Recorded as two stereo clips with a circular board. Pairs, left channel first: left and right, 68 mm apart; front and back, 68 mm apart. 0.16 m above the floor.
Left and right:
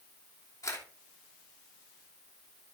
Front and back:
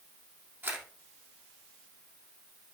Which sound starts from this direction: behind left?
A camera shutter, at 0.6 s.